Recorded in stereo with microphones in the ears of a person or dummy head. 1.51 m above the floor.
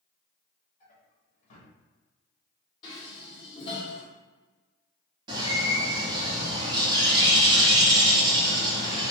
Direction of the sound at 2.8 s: 30° left (ahead or behind).